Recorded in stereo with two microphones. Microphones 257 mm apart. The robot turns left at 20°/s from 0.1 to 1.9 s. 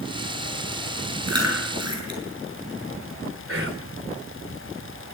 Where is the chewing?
80° right, 8 m; by 2.2 s 85° right, 8 m.